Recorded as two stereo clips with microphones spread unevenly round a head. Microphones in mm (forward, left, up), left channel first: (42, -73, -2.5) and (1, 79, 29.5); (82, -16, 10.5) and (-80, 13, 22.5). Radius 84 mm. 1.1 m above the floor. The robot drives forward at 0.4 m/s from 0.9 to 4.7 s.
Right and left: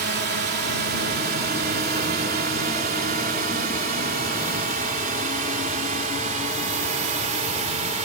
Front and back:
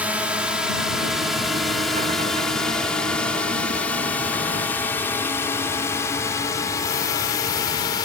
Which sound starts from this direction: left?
A drone, at 0.0 s.